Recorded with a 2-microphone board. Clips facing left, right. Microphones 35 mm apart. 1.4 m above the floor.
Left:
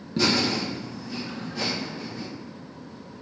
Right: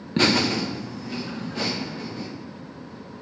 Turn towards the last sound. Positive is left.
turn(degrees=-55)  # may be behind; listen again after turning